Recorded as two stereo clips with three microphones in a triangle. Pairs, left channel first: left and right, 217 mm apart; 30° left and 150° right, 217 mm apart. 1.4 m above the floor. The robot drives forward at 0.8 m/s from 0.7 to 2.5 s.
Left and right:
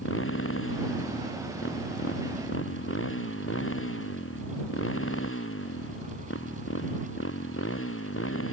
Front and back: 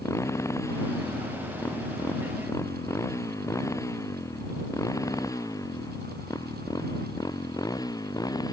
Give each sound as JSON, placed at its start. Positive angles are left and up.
{"t": 0.0, "sound": "a motorcycle", "azimuth_deg": 105}